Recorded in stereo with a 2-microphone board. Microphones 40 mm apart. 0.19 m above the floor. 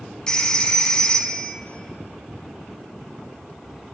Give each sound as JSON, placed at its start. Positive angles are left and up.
{"t": 0.3, "sound": "a phone ringing", "side_deg": 20, "distance_m": 0.6}